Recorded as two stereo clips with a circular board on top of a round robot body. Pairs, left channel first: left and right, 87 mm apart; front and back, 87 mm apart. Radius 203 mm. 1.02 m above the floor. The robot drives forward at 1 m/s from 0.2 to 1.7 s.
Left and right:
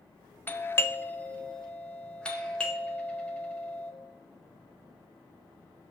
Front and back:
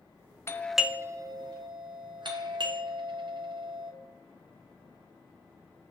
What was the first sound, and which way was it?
A doorbell, 35° left.